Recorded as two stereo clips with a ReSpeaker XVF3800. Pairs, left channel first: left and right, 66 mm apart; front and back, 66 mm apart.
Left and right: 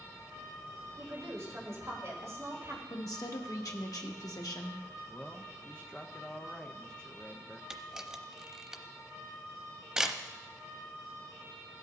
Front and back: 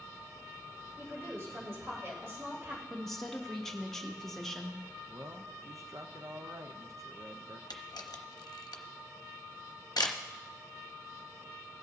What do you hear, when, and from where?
1.0 s a woman speaking: 130° right, 3.5 m
2.9 s a woman speaking: 85° left, 1.3 m
5.1 s a man speaking: 165° left, 0.6 m
7.7 s a camera shutter: 10° right, 0.8 m